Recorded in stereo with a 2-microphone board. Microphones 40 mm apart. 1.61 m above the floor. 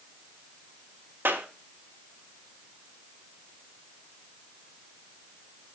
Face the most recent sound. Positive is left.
turn(degrees=-70)  # may be behind; listen again after turning